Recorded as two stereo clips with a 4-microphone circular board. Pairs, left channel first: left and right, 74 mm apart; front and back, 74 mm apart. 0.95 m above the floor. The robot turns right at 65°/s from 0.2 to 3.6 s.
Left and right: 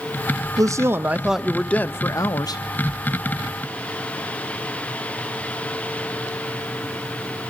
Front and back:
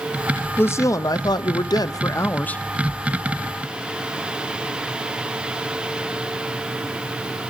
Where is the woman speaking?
55° right, 0.6 m; by 2.6 s 75° left, 0.6 m.